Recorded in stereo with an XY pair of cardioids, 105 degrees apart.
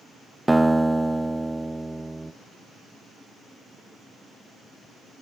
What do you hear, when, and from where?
0.5 s a guitar: 10° right, 0.9 m